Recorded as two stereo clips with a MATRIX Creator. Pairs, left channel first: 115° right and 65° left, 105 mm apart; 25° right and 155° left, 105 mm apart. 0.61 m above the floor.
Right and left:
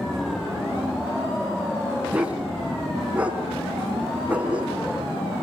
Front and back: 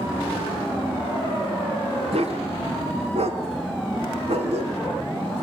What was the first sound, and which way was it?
A dog barking, 145° left.